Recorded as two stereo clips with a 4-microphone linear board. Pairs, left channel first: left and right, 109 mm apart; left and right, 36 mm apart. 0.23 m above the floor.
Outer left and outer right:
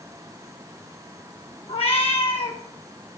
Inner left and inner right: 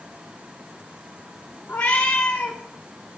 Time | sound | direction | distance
1.7 | a cat meowing | 60° left (ahead or behind) | 2 m